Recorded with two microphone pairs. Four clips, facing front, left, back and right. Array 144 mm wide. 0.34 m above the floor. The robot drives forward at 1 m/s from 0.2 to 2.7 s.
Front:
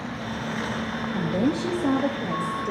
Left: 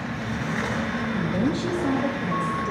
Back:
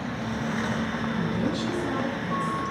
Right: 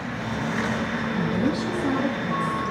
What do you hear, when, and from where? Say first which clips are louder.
1.1 s a woman speaking: right 1 dB, front 6 dB; 5° left, 6.5 m; by 2.7 s 10° left, 5 m